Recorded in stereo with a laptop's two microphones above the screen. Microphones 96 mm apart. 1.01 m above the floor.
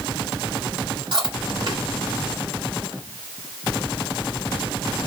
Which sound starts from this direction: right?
Chewing, at 1.1 s.